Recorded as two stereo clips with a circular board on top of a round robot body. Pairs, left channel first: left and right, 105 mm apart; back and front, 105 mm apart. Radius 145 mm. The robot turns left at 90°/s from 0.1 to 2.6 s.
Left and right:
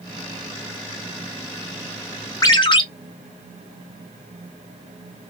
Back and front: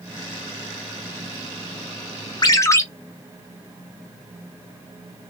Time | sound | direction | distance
2.4 | a ringtone | 140° left | 0.8 m